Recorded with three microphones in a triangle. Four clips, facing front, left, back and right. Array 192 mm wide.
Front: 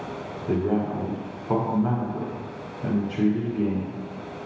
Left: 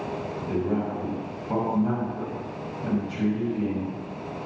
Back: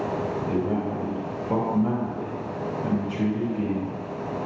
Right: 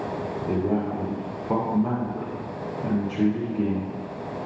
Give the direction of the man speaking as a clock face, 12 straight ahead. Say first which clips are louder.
Right 2 dB, front 5 dB; 1 o'clock.